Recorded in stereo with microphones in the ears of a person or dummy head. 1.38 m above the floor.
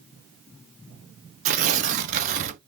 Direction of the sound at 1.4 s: 40° right (ahead or behind).